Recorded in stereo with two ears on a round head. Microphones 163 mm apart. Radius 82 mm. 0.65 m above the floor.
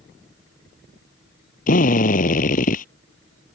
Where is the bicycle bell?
No bicycle bell in this recording.